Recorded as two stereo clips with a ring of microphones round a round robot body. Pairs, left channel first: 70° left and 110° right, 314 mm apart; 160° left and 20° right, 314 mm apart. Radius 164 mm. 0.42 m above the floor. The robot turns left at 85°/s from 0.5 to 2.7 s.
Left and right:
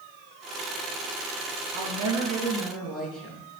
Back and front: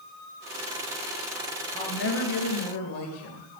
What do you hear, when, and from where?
1.7 s a woman speaking: 120° right, 5.5 m; by 3.5 s 155° left, 5.5 m